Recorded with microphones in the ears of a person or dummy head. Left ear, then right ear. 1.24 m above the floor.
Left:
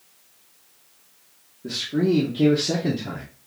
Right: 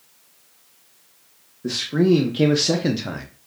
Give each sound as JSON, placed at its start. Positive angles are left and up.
{"t": 1.6, "sound": "a man speaking", "side_deg": -70, "distance_m": 1.1}